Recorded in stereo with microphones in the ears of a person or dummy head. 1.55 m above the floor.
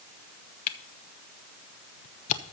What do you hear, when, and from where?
0.7 s a camera shutter: 40° left (ahead or behind), 0.8 m